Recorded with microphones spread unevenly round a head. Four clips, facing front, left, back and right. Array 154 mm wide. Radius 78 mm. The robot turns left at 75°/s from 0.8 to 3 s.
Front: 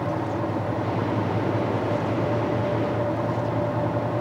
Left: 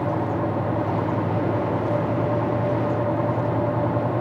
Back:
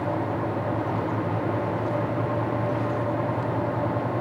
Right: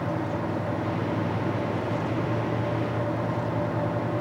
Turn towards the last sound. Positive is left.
No sound to turn to.